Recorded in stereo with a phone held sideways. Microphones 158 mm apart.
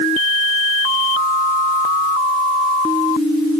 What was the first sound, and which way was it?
Only background noise.